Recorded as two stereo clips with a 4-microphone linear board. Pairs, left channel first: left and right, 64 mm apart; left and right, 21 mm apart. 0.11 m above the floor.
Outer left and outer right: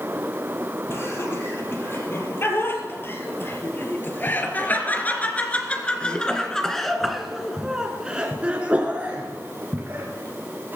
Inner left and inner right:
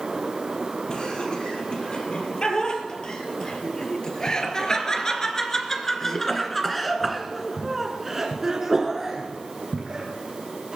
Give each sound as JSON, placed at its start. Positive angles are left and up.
{"t": 0.9, "sound": "laughter", "side_deg": 45, "distance_m": 4.0}